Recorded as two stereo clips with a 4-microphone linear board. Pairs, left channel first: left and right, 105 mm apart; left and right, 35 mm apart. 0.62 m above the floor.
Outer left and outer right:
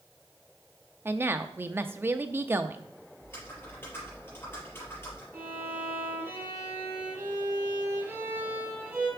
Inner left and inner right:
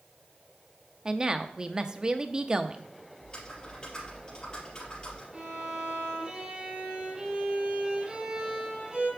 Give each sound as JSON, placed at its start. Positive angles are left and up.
{"t": 1.1, "sound": "a woman speaking", "side_deg": -20, "distance_m": 0.6}
{"t": 3.2, "sound": "typing on a keyboard", "side_deg": 25, "distance_m": 4.5}
{"t": 5.3, "sound": "a violin", "side_deg": -25, "distance_m": 4.0}